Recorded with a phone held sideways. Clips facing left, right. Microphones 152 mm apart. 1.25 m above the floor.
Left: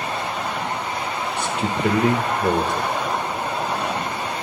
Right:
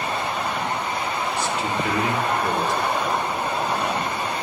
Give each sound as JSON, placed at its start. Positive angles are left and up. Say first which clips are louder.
{"t": 1.4, "sound": "a man speaking", "louder": "left 4 dB", "side_deg": 50, "distance_m": 1.4}